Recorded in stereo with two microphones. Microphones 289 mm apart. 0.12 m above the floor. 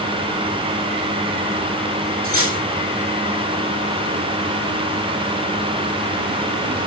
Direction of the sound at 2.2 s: 50° right (ahead or behind).